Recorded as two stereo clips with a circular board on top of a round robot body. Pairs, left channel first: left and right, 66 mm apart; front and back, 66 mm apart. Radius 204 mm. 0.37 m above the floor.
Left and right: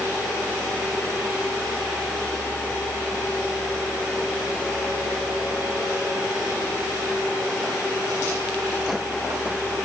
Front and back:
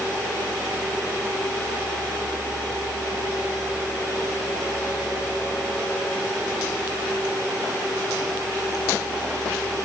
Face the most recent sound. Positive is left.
No sound to turn to.